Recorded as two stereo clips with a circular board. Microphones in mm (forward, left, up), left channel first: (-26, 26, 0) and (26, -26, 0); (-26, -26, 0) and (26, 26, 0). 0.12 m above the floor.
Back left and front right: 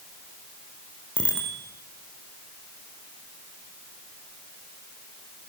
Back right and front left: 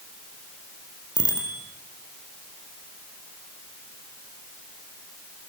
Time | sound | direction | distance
1.2 | a bicycle bell | 60° left | 4 m